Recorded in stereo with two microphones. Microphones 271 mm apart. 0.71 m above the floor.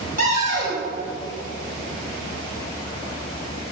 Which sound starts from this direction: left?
A cupboard door, at 0.2 s.